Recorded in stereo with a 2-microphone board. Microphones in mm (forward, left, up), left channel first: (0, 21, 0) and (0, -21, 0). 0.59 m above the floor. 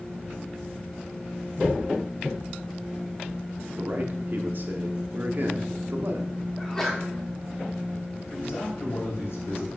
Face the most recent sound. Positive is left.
turn(degrees=75)  # may be behind; listen again after turning